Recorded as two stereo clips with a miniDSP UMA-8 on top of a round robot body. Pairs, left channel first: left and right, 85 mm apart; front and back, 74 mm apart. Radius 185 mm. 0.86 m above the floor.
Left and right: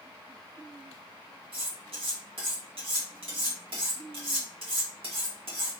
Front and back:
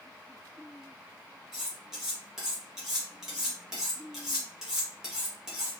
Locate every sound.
1.5 s cutlery clinking: 95° right, 1.5 m